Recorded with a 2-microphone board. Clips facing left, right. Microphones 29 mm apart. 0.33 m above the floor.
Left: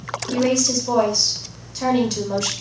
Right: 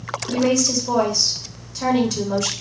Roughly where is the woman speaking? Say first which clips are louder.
Even; centre.